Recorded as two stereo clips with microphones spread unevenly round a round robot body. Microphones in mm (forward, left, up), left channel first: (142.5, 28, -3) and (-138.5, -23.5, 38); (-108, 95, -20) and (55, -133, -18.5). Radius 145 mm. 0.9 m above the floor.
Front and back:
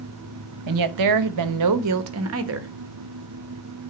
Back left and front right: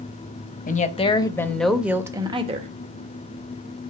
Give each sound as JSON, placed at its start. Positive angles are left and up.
{"t": 0.7, "sound": "a woman speaking", "azimuth_deg": -175, "distance_m": 1.2}